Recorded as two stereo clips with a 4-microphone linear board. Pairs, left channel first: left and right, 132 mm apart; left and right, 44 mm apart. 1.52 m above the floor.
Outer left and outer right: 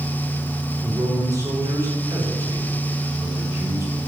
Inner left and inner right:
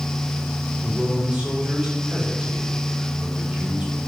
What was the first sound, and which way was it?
A man speaking, 25° right (ahead or behind).